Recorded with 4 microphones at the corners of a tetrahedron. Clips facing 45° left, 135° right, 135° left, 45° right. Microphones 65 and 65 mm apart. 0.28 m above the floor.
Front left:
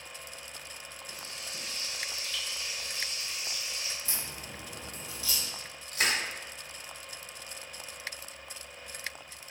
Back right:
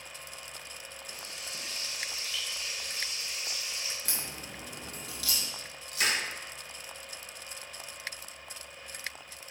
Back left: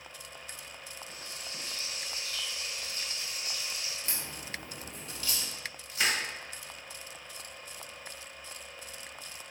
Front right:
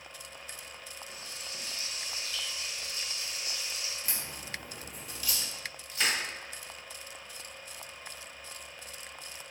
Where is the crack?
125° right, 1.0 m.